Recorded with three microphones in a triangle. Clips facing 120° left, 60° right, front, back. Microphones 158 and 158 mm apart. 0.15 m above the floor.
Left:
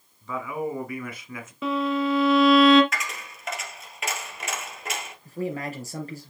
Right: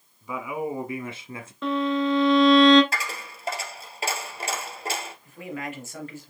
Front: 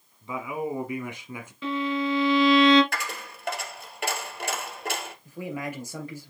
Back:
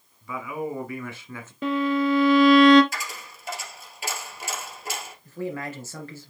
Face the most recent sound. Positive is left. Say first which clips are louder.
# left 7 dB, back 3 dB
turn(degrees=75)